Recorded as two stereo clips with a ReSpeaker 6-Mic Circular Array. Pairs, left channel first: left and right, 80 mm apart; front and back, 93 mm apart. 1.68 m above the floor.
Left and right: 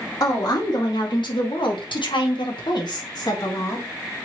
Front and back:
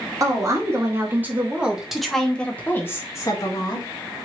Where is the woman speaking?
125° left, 1.7 m; by 3.9 s 40° left, 1.4 m.